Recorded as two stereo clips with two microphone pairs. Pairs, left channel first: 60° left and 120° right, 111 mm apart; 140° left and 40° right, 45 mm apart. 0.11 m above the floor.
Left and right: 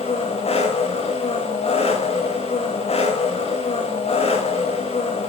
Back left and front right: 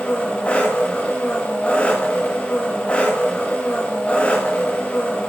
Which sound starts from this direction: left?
An engine running, at 0.0 s.